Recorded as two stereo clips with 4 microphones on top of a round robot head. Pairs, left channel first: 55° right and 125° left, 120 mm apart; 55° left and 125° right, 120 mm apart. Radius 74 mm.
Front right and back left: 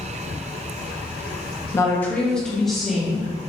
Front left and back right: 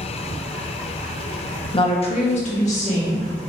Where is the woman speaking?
10° left, 0.7 m; by 3.3 s 40° left, 1.6 m.